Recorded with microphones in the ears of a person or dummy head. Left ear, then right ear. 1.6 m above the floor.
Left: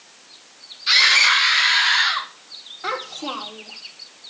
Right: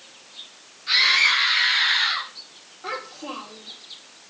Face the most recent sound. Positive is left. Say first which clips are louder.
# left 5 dB
turn(degrees=80)